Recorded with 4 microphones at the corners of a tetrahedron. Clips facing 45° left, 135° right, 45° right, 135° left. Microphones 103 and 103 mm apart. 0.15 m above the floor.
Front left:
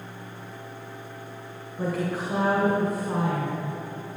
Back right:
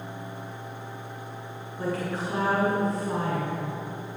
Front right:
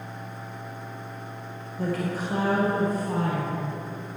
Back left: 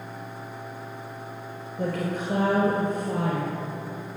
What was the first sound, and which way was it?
A woman speaking, 125° left.